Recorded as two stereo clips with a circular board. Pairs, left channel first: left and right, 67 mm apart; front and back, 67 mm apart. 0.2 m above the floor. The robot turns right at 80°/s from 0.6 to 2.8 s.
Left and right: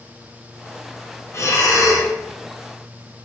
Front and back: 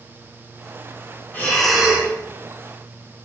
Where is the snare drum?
No snare drum in this recording.